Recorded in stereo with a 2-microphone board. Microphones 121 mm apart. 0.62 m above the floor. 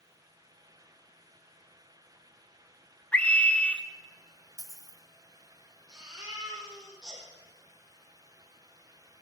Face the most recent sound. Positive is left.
turn(degrees=-5)  # may be behind; listen again after turning